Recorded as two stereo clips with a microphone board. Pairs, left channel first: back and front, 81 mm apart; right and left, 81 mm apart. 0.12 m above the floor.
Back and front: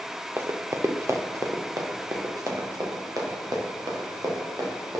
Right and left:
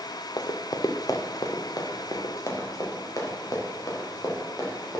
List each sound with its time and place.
0.4 s running footsteps: 60° right, 0.8 m; by 5.0 s 40° right, 4 m